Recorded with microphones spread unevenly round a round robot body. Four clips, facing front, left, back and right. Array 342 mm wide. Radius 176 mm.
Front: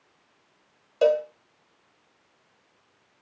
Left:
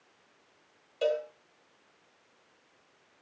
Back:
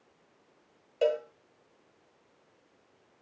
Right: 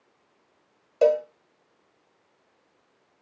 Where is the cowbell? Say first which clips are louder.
Right 9 dB, front 7 dB; 55° right, 1.5 m.